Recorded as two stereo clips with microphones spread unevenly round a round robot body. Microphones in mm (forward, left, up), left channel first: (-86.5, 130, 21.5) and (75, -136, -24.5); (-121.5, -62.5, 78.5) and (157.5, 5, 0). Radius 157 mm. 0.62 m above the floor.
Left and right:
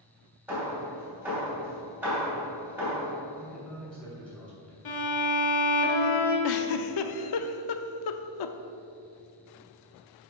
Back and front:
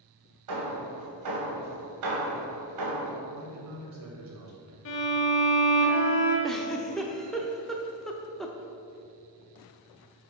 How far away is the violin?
About 1.6 m.